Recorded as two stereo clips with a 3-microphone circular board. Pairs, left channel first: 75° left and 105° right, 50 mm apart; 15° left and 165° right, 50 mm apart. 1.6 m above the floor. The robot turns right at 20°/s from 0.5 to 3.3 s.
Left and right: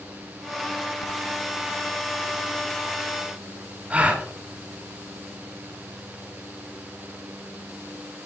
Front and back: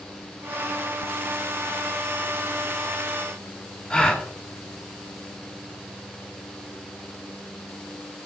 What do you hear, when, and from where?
3.9 s a gasp: 55° right, 1.4 m